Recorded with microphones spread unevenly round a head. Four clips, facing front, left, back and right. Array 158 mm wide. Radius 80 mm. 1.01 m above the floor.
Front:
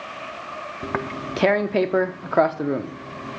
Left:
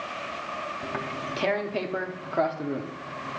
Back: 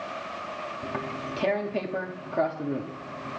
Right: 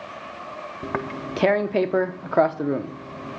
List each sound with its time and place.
0.8 s tearing paper: 35° right, 0.6 m